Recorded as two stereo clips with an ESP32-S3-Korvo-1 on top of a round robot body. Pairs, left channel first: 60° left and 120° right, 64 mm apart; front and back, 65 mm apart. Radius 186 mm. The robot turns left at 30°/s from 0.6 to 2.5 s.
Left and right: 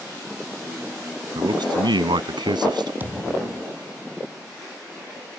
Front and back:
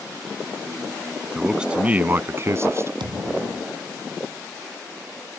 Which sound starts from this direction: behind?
A thud, at 3.0 s.